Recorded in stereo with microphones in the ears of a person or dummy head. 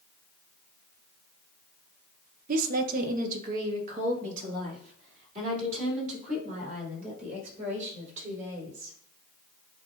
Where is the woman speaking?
50° right (ahead or behind), 0.7 m; by 8.9 s 45° right (ahead or behind), 6.5 m.